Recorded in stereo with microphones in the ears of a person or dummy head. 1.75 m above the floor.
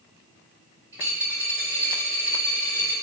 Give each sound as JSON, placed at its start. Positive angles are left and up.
{"t": 0.9, "sound": "a dropped coin", "side_deg": -15, "distance_m": 1.8}